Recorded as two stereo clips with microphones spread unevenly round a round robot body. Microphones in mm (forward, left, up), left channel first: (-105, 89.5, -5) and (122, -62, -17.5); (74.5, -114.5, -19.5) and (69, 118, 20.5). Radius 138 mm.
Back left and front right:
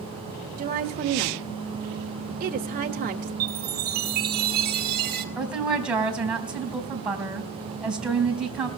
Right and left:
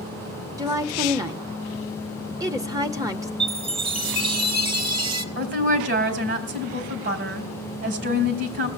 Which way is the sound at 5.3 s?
50° left.